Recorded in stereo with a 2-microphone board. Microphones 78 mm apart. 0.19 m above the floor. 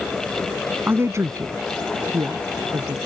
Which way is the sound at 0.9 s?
30° right (ahead or behind).